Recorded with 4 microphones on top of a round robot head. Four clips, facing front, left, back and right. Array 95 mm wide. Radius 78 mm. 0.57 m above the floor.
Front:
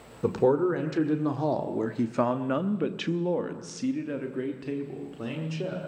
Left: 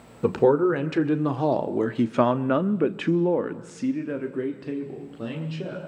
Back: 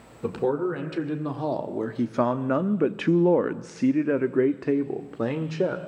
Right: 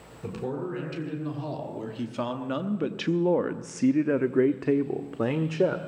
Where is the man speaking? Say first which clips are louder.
Left 14 dB, front 2 dB; 75° left, 1.8 m; by 5.8 s 130° right, 1.7 m.